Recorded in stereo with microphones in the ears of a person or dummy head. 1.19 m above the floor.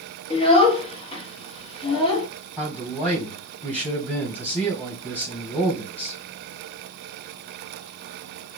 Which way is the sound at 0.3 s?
30° left (ahead or behind).